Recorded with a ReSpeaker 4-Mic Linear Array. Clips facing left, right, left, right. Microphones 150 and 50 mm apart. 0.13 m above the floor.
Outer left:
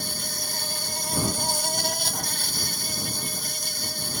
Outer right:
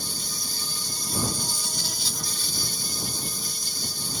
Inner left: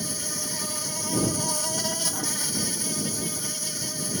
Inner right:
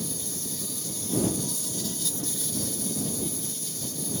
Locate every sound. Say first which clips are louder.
0.0 s an insect: outer left 3 dB, inner left 3 dB; 70° left (ahead or behind)